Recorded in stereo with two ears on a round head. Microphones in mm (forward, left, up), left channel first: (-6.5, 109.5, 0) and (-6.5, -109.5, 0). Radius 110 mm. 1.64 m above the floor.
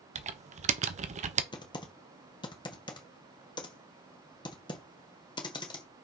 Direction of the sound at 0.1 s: 30° right (ahead or behind).